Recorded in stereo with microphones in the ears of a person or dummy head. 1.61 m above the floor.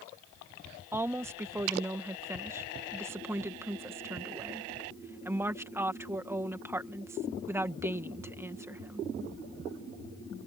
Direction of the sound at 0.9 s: 10° right (ahead or behind).